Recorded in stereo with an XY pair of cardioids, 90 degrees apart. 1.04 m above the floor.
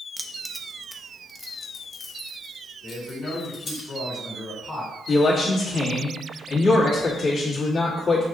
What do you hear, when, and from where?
0.2 s keys jangling: 20° right, 0.5 m; by 3.8 s 60° left, 1.9 m
2.8 s a man speaking: 40° left, 2.5 m
5.1 s a man speaking: 60° left, 1.9 m